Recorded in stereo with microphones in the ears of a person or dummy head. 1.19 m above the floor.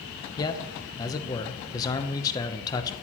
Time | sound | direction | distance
0.4 | a man speaking | 20° left (ahead or behind) | 0.7 m